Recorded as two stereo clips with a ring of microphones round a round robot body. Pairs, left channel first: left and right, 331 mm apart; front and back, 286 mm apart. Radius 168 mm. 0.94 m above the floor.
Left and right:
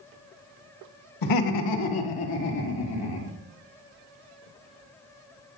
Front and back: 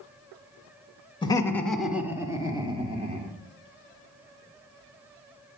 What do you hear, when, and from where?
1.2 s laughter: 75° left, 1.7 m; by 3.3 s 110° left, 3.5 m